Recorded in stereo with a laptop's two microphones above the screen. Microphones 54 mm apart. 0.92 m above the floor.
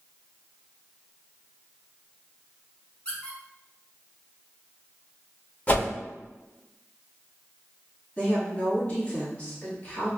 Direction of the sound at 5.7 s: 30° left (ahead or behind).